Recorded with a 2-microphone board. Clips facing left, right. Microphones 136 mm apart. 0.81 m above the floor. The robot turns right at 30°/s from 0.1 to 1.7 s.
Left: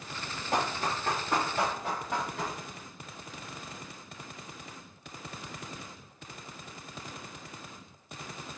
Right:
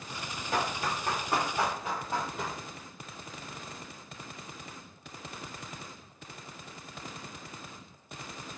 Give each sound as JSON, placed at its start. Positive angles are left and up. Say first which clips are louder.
{"t": 0.5, "sound": "running footsteps", "louder": "left 1 dB", "side_deg": 40, "distance_m": 1.8}